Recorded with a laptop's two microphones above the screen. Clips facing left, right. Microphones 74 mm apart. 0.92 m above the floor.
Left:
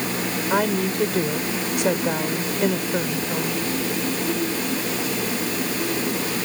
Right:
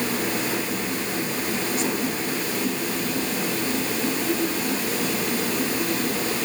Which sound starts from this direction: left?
A woman speaking, at 0.5 s.